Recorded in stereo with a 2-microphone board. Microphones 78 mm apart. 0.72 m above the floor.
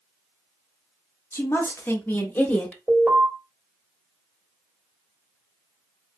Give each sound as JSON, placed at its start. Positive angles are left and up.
{"t": 1.3, "sound": "a woman speaking", "side_deg": 30, "distance_m": 1.1}
{"t": 2.9, "sound": "an alarm", "side_deg": -10, "distance_m": 2.0}